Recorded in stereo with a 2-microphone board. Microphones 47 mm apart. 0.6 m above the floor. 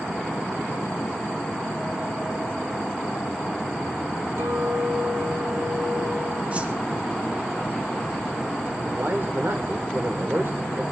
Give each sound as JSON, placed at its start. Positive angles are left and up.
{"t": 4.4, "sound": "a clink", "side_deg": -70, "distance_m": 7.0}
{"t": 6.5, "sound": "a whoosh", "side_deg": -30, "distance_m": 4.0}
{"t": 9.0, "sound": "a man speaking", "side_deg": -55, "distance_m": 2.0}